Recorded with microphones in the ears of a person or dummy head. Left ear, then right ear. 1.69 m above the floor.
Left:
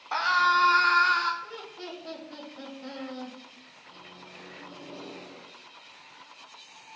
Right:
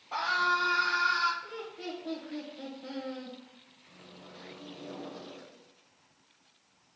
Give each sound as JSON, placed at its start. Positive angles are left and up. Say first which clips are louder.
{"t": 0.1, "sound": "a scream", "louder": "left 5 dB", "side_deg": 55, "distance_m": 1.1}
{"t": 1.4, "sound": "laughter", "louder": "even", "side_deg": 85, "distance_m": 1.8}
{"t": 3.9, "sound": "a microwave", "louder": "left 4 dB", "side_deg": 5, "distance_m": 2.5}